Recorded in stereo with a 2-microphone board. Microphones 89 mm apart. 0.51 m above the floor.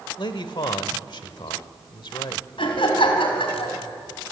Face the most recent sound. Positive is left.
turn(degrees=75)  # may be behind; listen again after turning